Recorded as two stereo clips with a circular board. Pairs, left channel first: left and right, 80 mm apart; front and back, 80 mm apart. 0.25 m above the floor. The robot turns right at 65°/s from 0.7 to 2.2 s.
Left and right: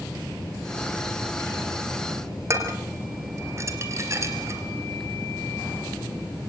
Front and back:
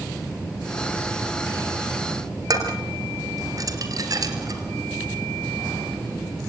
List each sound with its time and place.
2.5 s dishes clattering: 140° right, 3.5 m